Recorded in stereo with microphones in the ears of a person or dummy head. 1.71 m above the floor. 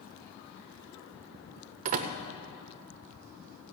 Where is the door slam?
40° right (ahead or behind), 0.6 m.